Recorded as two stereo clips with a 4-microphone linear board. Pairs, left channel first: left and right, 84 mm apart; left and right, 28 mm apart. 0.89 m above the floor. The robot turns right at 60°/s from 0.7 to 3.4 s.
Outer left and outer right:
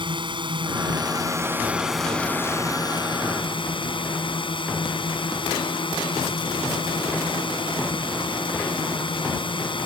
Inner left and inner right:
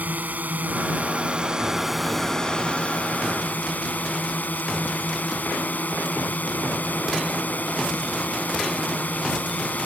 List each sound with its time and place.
0.0 s a drone: 75° right; by 9.8 s 85° left